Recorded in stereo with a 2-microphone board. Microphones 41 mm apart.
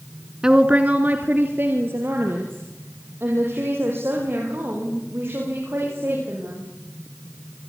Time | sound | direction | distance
0.4 | a woman speaking | 20° right (ahead or behind) | 1.5 m